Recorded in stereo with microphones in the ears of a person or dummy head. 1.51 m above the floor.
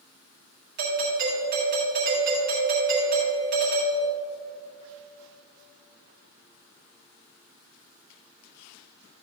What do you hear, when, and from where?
0.8 s a doorbell: 45° right (ahead or behind), 1.8 m